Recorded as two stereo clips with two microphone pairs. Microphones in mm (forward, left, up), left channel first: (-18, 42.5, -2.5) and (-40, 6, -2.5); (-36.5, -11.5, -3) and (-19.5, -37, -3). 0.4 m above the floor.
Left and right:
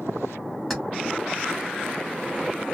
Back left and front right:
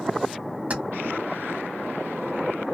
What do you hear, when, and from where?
0.7 s keys jangling: 30° right, 1.7 m